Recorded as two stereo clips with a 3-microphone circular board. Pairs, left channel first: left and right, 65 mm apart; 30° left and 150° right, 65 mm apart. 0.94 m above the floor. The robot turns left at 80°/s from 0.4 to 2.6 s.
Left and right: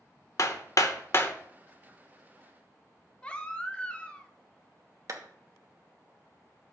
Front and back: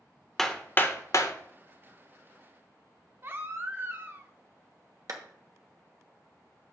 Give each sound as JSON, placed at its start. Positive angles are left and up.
{"t": 0.4, "sound": "hammering", "azimuth_deg": 110, "distance_m": 0.8}
{"t": 3.2, "sound": "a baby crying", "azimuth_deg": 160, "distance_m": 0.8}
{"t": 5.1, "sound": "a clap", "azimuth_deg": -125, "distance_m": 1.1}